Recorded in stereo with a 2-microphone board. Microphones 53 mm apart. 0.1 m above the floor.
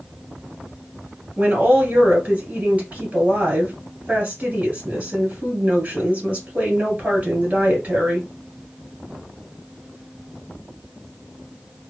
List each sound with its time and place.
1.4 s a woman speaking: 30° right (ahead or behind), 1.9 m